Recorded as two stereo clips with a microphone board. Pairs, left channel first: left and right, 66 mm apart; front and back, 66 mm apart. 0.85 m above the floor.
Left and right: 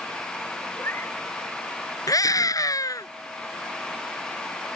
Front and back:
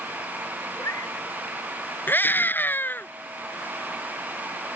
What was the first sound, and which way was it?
A cat meowing, 40° left.